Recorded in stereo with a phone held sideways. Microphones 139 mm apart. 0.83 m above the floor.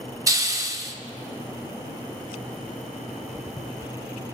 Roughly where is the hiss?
Right.